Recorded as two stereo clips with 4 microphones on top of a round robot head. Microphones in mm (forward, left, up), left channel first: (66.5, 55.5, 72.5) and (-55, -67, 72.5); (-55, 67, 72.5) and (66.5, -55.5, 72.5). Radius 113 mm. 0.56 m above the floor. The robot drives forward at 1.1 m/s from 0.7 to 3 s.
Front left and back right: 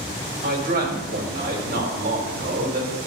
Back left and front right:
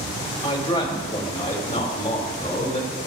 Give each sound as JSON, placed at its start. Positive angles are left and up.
{"t": 0.4, "sound": "a man speaking", "azimuth_deg": -165, "distance_m": 2.0}